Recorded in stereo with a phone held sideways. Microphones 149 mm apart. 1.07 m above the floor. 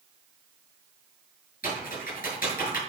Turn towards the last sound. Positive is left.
turn(degrees=75)  # may be behind; listen again after turning